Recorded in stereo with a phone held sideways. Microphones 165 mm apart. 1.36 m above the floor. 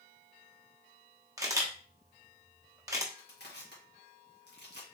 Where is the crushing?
80° left, 1.7 m.